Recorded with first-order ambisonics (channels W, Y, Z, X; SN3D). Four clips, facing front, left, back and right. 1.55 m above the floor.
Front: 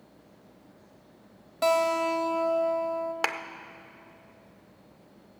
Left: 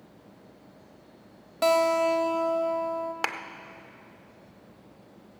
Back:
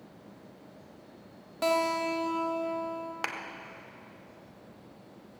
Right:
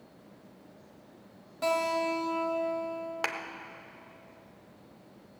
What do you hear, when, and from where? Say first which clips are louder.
1.6 s a guitar: left 6 dB, front 3 dB; 85° left, 1.1 m
3.2 s a clap: left 1 dB, front 5 dB; 35° left, 0.5 m